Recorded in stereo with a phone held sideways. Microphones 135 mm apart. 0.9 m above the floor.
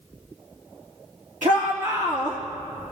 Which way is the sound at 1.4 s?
75° right (ahead or behind).